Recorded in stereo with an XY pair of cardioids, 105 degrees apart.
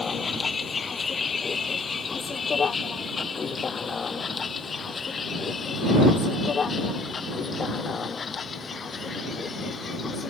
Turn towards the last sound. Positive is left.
turn(degrees=40)